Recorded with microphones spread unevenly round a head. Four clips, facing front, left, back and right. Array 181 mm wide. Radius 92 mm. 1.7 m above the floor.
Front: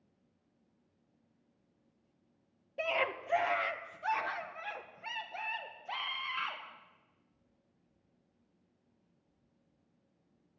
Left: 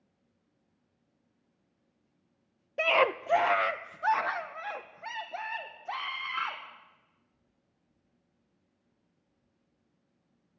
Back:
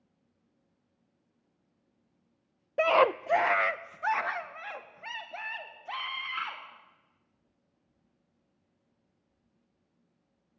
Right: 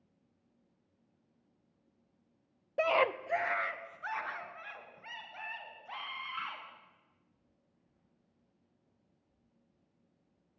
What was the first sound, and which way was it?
A scream, 160° right.